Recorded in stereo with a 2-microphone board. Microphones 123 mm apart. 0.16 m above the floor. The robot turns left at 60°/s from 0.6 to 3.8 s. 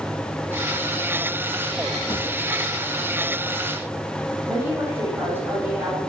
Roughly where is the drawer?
Left.